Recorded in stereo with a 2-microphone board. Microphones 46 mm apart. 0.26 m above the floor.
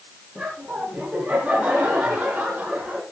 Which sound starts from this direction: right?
Laughter, at 0.3 s.